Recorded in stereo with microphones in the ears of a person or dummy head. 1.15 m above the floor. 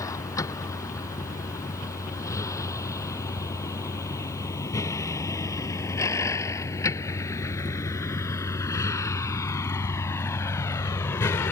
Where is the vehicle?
15° left (ahead or behind); by 11.5 s 10° left (ahead or behind).